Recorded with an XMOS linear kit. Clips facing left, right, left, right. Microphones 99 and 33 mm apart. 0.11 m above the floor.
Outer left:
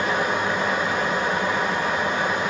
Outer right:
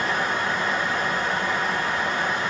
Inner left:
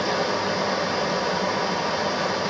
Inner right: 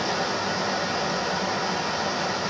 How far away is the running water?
About 1.3 m.